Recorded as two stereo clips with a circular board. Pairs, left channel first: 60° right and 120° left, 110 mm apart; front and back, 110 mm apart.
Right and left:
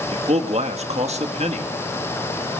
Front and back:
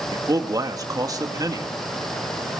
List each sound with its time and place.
0.1 s a man speaking: 125° left, 2 m